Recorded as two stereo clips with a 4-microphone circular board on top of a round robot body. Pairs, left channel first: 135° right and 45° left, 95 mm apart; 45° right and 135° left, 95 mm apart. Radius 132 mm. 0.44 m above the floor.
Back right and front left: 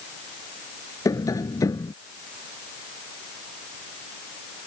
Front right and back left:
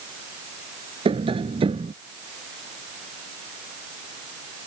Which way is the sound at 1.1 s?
165° left.